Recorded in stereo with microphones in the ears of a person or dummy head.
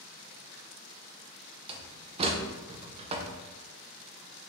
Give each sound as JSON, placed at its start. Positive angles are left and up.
{"t": 1.7, "sound": "a door slam", "side_deg": -35, "distance_m": 0.6}